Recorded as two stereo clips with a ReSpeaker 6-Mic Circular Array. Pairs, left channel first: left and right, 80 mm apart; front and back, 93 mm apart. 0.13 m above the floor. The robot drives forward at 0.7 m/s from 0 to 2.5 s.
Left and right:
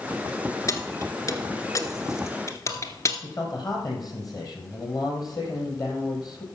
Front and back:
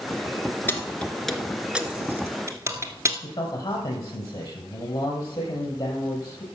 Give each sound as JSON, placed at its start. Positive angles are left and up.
{"t": 0.7, "sound": "keys jangling", "azimuth_deg": 60, "distance_m": 1.5}
{"t": 3.2, "sound": "a man speaking", "azimuth_deg": 50, "distance_m": 4.0}